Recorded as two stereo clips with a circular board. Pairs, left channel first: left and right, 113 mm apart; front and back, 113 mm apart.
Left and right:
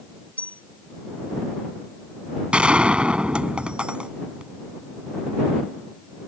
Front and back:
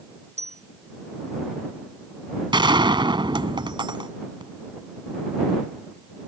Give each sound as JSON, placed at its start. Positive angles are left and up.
{"t": 0.4, "sound": "a bell", "azimuth_deg": 170}
{"t": 2.5, "sound": "a gunshot", "azimuth_deg": -165}